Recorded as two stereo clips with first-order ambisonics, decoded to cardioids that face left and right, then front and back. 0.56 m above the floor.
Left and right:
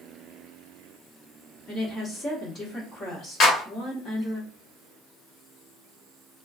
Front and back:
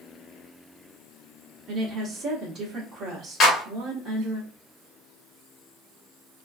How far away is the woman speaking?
About 1.2 m.